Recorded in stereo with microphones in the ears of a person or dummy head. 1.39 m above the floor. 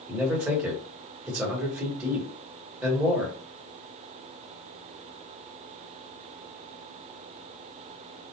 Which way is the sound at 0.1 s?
10° right (ahead or behind).